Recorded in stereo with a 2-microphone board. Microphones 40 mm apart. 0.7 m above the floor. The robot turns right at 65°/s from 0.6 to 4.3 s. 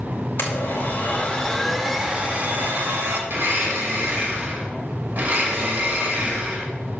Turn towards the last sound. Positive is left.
turn(degrees=-60)